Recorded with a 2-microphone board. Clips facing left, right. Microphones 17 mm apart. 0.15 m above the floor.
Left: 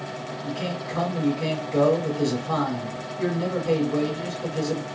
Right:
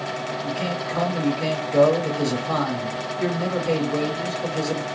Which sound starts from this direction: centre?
A man speaking, at 0.4 s.